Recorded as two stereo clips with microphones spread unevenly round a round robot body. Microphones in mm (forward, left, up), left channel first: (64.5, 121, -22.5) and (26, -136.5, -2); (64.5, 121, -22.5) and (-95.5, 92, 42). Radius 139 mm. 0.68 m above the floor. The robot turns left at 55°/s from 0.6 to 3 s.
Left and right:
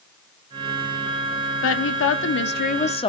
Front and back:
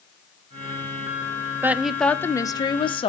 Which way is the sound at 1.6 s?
95° left.